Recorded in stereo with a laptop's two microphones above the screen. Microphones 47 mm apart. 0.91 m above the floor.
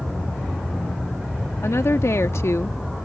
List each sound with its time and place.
1.6 s a woman speaking: 75° left (ahead or behind)